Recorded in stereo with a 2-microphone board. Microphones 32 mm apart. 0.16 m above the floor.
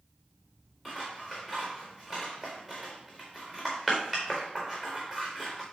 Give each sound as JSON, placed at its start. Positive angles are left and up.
{"t": 0.8, "sound": "scissors", "side_deg": 5, "distance_m": 4.0}